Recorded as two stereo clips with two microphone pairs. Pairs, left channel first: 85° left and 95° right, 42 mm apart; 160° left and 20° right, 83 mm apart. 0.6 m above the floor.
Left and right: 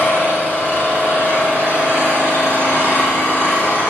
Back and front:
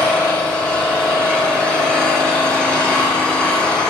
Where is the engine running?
80° left, 6 m.